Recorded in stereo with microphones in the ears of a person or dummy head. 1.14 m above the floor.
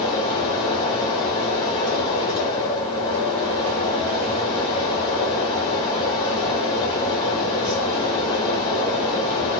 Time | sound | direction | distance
0.0 | a fan | 30° left (ahead or behind) | 1.4 m